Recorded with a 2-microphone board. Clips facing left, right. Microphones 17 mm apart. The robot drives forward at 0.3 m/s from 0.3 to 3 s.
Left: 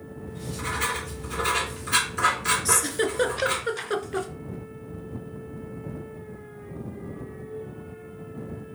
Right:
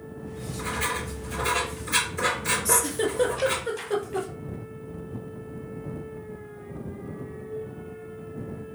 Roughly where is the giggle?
Left.